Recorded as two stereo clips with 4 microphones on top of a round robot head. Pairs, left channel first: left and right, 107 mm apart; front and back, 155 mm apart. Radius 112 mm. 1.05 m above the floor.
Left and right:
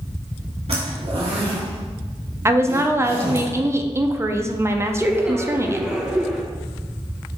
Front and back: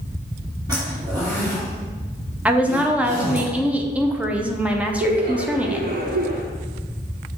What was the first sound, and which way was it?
A zipper, 115° right.